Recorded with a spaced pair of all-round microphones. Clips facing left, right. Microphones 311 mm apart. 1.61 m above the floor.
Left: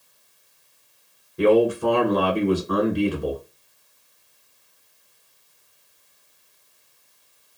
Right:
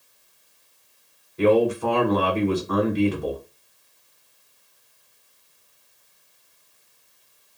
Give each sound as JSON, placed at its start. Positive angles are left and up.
{"t": 1.4, "sound": "a man speaking", "side_deg": 15, "distance_m": 1.2}